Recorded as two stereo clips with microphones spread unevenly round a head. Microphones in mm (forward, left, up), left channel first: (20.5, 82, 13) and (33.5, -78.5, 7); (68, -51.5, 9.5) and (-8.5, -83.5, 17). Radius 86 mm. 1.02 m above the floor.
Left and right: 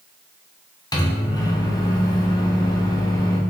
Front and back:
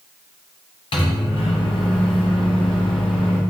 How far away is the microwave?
About 0.7 m.